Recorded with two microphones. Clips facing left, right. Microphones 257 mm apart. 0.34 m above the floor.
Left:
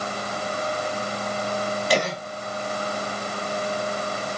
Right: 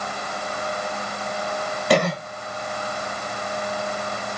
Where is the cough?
60° right (ahead or behind), 3.5 m.